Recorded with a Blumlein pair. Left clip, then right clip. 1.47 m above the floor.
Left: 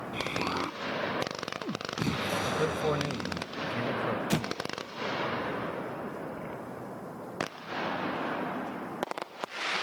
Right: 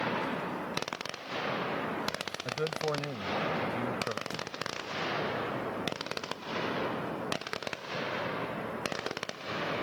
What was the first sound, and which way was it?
An explosion, 50° left.